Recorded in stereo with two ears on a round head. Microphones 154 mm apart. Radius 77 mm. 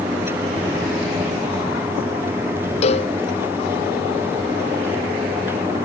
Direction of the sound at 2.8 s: 35° left (ahead or behind).